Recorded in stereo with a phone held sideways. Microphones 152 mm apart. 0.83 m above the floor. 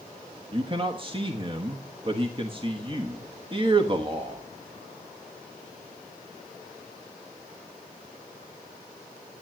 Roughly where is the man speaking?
Right.